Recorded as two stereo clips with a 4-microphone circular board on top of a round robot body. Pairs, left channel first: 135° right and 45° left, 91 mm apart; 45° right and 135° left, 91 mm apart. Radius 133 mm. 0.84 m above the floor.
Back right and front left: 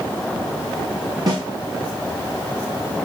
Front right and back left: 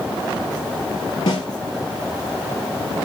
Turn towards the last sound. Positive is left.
turn(degrees=-5)